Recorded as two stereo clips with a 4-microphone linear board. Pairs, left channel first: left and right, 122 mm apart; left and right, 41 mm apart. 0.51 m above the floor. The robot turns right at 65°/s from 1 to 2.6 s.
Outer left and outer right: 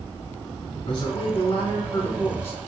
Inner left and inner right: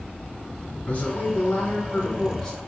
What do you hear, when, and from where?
0.9 s a man speaking: 60° left, 1.5 m; by 2.6 s 165° left, 1.5 m